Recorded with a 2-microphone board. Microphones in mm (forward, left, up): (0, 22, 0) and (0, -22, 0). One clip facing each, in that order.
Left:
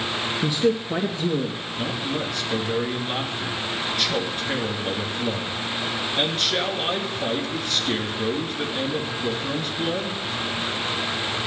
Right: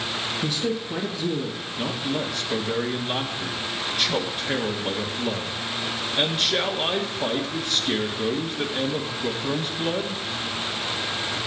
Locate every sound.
0.4 s a woman speaking: 25° left (ahead or behind), 1.6 m; by 1.6 s 35° left (ahead or behind), 1.9 m
1.8 s a man speaking: 5° right (ahead or behind), 1.7 m